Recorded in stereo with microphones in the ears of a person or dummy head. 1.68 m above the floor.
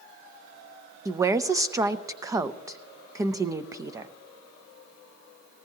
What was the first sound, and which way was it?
A woman speaking, 15° right (ahead or behind).